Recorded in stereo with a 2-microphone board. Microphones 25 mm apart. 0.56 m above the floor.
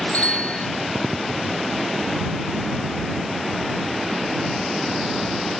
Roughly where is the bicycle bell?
Left.